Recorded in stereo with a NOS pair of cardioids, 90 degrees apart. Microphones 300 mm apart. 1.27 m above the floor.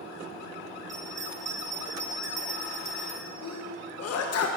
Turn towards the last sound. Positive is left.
turn(degrees=55)